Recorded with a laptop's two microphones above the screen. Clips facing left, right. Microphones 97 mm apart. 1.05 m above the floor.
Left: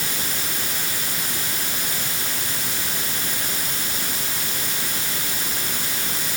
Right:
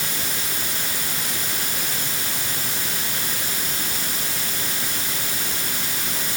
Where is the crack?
No crack in this recording.